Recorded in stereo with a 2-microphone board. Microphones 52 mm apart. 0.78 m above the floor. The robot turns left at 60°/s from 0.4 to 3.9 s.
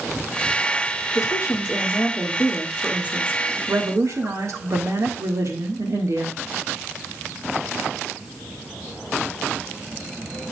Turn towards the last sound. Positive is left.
turn(degrees=-75)